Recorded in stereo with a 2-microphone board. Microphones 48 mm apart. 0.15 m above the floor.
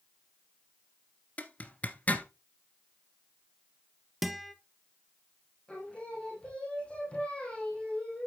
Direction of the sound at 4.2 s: 5° right (ahead or behind).